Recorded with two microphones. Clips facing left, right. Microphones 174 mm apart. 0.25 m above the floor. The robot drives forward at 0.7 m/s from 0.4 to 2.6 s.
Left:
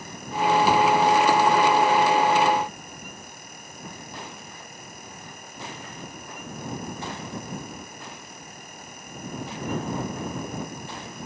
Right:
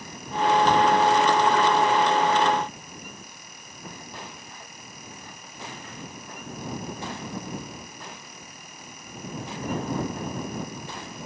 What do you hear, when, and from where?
Only background noise.